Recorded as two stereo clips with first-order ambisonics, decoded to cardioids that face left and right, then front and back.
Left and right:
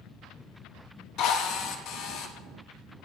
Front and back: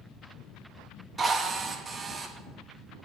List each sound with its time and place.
1.2 s a drill: 105° left, 1.0 m